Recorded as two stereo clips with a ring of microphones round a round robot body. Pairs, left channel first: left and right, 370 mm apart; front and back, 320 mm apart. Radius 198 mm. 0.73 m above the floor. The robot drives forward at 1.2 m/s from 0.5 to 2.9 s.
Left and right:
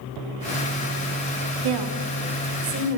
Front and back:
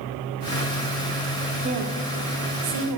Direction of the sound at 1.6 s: 110° right.